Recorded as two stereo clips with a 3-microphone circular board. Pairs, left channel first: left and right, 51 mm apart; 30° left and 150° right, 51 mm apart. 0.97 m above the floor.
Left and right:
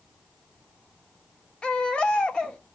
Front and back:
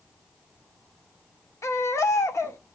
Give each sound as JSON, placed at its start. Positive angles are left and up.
{"t": 1.6, "sound": "a baby crying", "azimuth_deg": 20, "distance_m": 1.3}